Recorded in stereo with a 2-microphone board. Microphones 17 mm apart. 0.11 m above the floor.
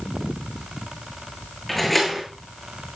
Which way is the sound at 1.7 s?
5° left (ahead or behind).